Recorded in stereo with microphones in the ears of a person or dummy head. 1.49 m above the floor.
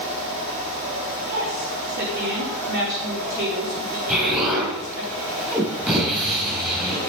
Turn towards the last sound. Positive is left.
turn(degrees=-5)  # may be behind; listen again after turning